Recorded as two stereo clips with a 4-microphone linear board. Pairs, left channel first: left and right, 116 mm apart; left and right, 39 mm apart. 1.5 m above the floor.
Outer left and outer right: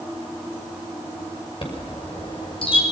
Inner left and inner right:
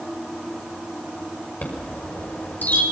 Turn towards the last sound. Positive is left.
turn(degrees=50)  # may be behind; listen again after turning